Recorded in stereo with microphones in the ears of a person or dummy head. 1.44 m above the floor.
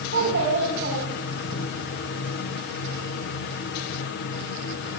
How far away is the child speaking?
About 7 m.